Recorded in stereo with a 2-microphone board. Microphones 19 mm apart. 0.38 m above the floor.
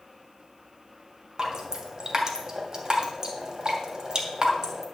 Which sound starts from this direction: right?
Dripping, at 1.4 s.